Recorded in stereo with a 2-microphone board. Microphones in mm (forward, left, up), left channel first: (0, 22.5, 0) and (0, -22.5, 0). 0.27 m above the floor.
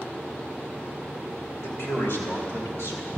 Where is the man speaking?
70° left (ahead or behind), 3 m; by 3.1 s 75° left (ahead or behind), 4 m.